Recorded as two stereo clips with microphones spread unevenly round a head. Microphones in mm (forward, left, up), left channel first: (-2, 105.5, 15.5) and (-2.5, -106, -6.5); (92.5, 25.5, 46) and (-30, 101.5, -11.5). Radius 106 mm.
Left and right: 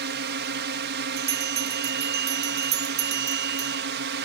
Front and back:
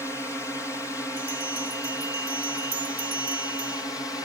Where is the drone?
115° right.